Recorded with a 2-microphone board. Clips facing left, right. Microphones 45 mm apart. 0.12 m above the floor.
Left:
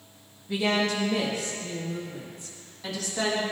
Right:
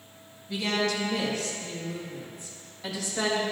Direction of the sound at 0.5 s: 30° left (ahead or behind).